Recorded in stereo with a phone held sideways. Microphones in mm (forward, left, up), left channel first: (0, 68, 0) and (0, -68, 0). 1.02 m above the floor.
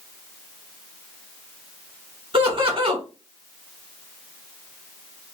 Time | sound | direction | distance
2.3 | laughter | 40° right (ahead or behind) | 1.2 m